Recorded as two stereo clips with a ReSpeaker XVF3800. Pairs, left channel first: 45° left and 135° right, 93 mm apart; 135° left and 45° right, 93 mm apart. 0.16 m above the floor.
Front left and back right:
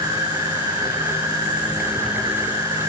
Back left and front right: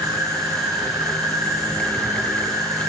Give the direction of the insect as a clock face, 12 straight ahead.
3 o'clock.